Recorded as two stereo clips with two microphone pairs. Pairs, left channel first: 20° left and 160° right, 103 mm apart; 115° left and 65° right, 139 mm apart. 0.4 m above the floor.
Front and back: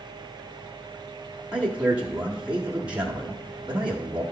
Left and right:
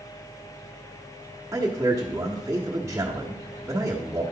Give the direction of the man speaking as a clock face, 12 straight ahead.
3 o'clock.